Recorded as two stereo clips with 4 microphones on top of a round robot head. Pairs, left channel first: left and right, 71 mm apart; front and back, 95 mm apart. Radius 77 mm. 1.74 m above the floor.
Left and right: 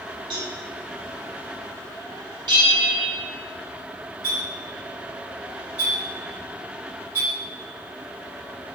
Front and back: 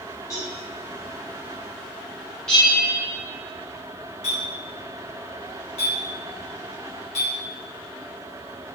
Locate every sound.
0.3 s a cowbell: 65° right, 1.7 m
2.5 s a bell: 85° right, 2.5 m
4.2 s a clink: 15° right, 3 m